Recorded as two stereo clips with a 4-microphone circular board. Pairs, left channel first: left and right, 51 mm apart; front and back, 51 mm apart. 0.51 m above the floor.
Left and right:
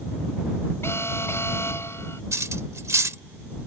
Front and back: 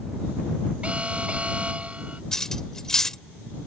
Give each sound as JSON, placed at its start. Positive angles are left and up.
{"t": 0.8, "sound": "an alarm", "azimuth_deg": 115}
{"t": 2.3, "sound": "cutlery clinking", "azimuth_deg": -80}